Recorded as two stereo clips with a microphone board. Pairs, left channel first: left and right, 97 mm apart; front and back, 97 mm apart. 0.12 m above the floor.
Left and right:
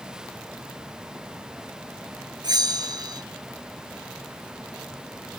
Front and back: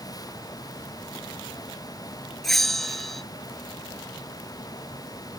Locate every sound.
2.4 s a bell: 85° right